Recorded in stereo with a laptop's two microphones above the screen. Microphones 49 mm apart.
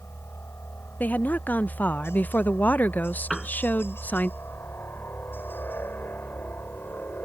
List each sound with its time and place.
0.0 s a helicopter: 60° left (ahead or behind); by 7.2 s 40° left (ahead or behind)
1.0 s a woman speaking: 35° left (ahead or behind)
3.3 s a piano: centre (ahead or behind)